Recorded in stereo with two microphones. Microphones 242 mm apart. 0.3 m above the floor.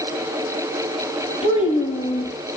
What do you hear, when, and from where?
1.4 s a child speaking: 25° left (ahead or behind), 5.5 m